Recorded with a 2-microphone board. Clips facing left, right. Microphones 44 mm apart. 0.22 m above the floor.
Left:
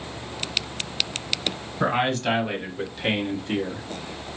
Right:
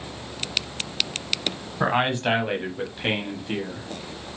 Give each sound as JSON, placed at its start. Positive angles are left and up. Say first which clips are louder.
{"t": 1.8, "sound": "a man speaking", "louder": "right 1 dB", "side_deg": -20, "distance_m": 1.2}